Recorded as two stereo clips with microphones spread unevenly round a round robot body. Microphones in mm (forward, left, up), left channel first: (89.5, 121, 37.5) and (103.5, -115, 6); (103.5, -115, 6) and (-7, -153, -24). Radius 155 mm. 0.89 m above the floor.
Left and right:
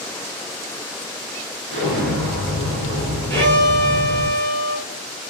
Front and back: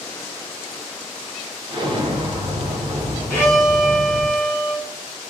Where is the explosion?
105° right, 1.0 m.